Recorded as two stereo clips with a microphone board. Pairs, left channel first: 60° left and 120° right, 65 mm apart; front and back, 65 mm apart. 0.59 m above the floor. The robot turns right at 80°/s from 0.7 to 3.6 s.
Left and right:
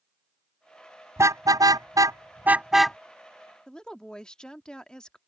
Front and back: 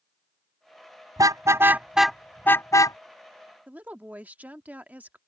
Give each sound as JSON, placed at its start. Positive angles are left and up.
{"t": 1.2, "sound": "a car horn", "azimuth_deg": -165}
{"t": 3.7, "sound": "a woman speaking", "azimuth_deg": 130}